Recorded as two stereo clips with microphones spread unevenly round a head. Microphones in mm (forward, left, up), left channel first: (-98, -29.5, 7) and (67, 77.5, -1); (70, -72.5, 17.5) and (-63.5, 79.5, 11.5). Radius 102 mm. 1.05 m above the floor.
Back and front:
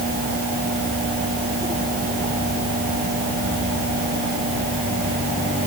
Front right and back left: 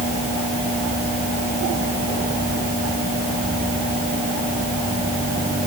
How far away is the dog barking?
No dog barking in this recording.